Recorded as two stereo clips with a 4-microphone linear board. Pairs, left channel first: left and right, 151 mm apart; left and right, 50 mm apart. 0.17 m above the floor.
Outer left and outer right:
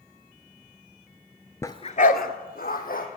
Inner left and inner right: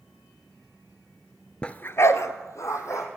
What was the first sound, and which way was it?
A dog barking, 20° left (ahead or behind).